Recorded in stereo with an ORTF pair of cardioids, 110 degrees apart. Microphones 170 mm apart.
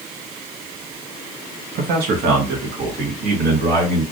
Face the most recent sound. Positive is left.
turn(degrees=-65)